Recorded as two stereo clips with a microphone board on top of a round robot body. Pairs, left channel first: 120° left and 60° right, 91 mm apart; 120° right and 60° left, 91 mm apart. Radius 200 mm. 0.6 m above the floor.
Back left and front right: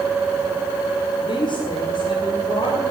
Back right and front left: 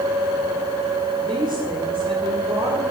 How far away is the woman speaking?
About 2 m.